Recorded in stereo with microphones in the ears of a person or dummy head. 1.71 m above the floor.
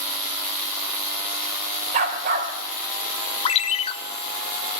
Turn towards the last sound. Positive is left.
turn(degrees=35)  # may be behind; listen again after turning